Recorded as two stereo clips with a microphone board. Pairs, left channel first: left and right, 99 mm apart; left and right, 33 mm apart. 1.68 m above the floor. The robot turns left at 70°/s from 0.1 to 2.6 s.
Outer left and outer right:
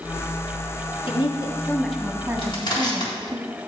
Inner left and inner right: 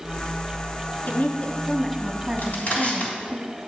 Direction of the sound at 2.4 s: 65° left (ahead or behind).